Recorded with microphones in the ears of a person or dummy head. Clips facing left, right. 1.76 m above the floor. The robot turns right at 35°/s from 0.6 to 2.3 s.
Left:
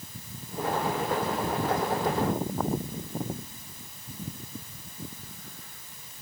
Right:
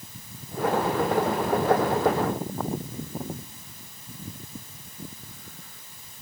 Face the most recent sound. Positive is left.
No sound to turn to.